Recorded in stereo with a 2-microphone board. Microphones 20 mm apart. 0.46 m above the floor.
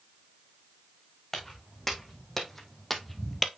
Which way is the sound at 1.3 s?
20° left (ahead or behind).